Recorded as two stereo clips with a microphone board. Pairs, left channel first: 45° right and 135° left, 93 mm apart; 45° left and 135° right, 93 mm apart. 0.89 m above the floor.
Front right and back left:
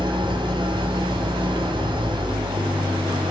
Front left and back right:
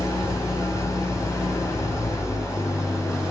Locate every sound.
0.0 s an engine running: 100° left, 5 m